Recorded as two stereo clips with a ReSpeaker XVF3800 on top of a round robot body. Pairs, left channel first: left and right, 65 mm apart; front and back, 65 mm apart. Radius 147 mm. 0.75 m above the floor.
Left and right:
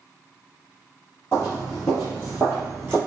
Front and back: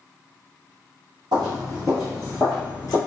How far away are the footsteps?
About 1.0 m.